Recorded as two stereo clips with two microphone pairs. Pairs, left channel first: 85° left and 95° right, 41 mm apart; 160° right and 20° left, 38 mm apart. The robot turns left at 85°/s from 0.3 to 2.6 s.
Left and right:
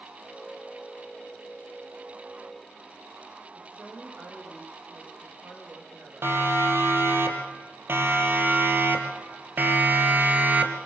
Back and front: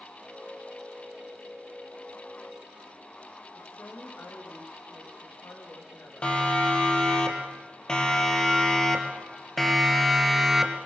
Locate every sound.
3.5 s a woman speaking: 150° right, 9 m
6.2 s a siren: 100° right, 5 m; by 10.8 s 60° right, 2.5 m